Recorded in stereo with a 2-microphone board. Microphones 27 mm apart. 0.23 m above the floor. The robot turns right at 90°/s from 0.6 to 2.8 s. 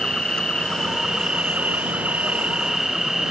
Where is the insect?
150° left; by 3.3 s 10° right.